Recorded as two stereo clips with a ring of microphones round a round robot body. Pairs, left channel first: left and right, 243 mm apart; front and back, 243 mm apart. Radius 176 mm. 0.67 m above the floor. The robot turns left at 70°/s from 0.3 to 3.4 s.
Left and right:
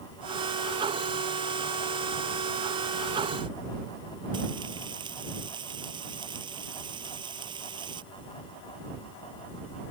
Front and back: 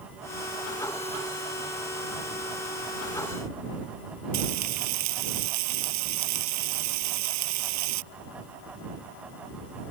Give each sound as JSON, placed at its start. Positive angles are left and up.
{"t": 4.3, "sound": "frying", "azimuth_deg": -165}